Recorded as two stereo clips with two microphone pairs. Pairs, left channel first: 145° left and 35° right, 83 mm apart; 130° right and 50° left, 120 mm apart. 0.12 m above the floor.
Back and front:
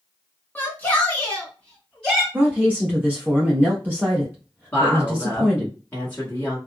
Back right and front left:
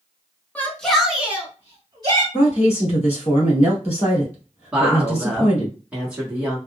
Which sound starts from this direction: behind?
A shout, at 0.6 s.